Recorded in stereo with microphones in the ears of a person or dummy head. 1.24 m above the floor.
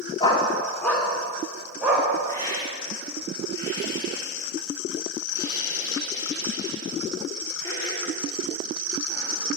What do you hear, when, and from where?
0.2 s a dog barking: 30° left (ahead or behind), 1.2 m; by 2.1 s 5° right (ahead or behind), 2.5 m
2.3 s a hiss: 25° left (ahead or behind), 2.5 m